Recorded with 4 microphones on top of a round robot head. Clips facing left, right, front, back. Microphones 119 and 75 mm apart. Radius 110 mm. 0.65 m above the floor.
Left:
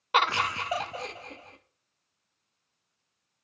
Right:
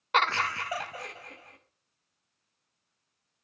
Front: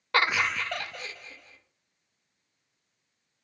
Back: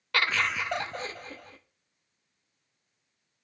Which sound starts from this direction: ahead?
Laughter, at 0.1 s.